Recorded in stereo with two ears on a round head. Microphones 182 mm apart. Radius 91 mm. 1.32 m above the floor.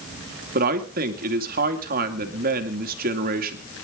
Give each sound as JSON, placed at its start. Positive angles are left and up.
{"t": 0.6, "sound": "a man speaking", "side_deg": -45, "distance_m": 2.5}